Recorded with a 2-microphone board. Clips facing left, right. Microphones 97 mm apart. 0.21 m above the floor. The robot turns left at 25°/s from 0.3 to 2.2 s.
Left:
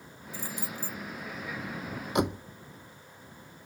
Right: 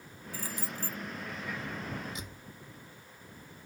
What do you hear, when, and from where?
0.3 s keys jangling: 25° left (ahead or behind); by 1.0 s 20° left (ahead or behind)
2.1 s a door slam: 65° left (ahead or behind); by 2.5 s 60° left (ahead or behind)